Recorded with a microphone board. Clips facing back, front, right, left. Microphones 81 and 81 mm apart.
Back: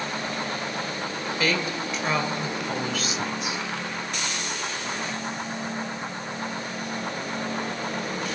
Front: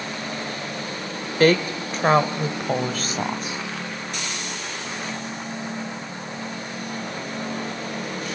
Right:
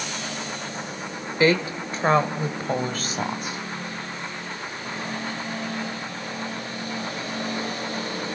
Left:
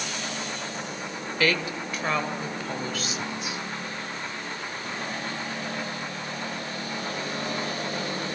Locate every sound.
1.4 s a woman speaking: 30° right, 1.6 m; by 3.6 s 50° right, 3 m